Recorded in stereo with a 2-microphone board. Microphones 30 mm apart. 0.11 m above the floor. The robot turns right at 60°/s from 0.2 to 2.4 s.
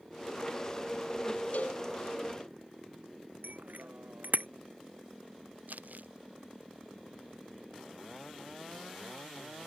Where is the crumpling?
75° right (ahead or behind).